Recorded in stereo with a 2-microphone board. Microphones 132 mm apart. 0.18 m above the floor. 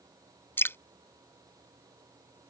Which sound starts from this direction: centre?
Dripping, at 0.6 s.